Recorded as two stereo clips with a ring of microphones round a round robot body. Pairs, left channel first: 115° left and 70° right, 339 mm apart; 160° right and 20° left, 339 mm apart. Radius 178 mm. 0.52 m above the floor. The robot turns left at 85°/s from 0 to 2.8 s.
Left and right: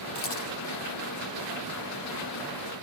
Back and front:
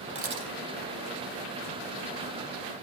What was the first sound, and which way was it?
A camera shutter, 95° left.